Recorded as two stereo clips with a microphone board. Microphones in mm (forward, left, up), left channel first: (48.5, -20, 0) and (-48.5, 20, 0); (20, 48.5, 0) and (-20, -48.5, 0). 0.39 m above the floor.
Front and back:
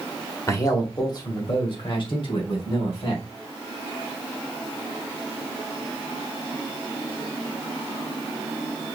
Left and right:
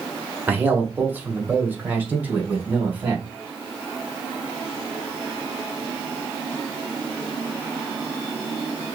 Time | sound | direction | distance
0.5 | a man speaking | 55° right | 1.3 m